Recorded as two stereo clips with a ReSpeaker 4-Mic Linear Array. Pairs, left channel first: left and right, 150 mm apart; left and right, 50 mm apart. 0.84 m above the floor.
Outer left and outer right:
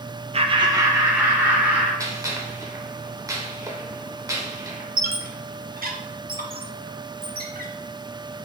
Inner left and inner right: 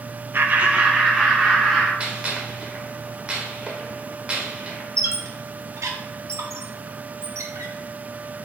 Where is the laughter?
45° right (ahead or behind), 0.6 m; by 1.9 s 10° right (ahead or behind), 2.5 m.